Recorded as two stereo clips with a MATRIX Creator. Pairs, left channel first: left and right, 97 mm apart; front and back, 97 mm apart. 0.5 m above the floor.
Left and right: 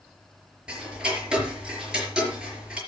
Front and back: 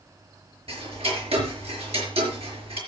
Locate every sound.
0.7 s ticking: 170° right, 5 m